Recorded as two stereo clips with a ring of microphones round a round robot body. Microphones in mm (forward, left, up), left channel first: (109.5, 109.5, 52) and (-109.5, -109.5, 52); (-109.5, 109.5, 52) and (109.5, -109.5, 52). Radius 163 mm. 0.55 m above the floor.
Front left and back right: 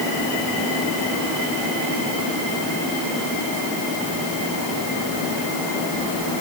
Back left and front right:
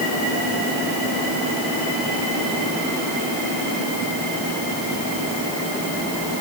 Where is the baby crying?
No baby crying in this recording.